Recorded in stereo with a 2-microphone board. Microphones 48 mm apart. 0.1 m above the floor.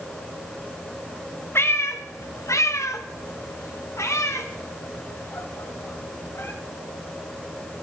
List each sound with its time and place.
1.6 s a cat meowing: 50° left (ahead or behind), 1.7 m; by 6.5 s 55° left (ahead or behind), 3.5 m